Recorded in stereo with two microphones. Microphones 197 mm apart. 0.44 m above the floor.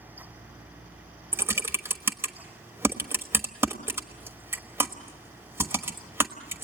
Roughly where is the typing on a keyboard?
Centre.